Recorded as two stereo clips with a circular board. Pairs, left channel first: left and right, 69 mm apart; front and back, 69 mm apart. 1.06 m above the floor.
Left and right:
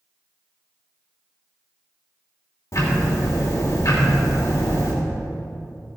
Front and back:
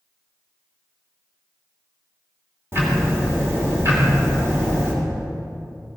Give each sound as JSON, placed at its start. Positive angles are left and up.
{"t": 2.7, "sound": "ticking", "azimuth_deg": 125, "distance_m": 3.0}